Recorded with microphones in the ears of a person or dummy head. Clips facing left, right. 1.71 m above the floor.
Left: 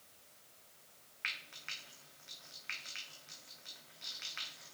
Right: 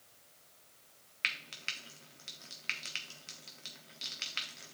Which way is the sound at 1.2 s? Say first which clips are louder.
Right 5 dB; 45° right (ahead or behind).